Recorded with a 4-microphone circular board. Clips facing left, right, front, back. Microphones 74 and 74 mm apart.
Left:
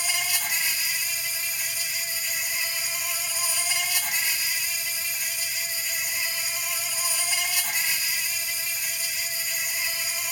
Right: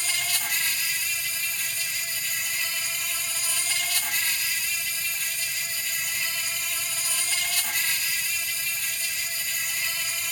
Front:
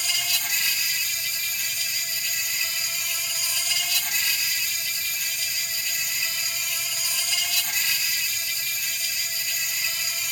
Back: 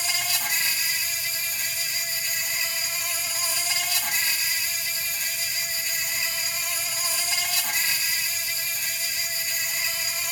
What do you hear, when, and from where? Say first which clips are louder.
0.0 s an insect: left 1 dB, back 1 dB; 155° left, 2 m